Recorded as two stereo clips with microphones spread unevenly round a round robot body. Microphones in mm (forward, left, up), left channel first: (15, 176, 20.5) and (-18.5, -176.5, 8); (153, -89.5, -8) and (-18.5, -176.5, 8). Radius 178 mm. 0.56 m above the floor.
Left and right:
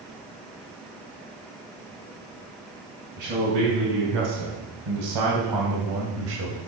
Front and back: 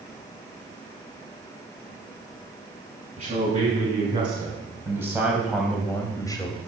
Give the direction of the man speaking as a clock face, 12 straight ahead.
3 o'clock.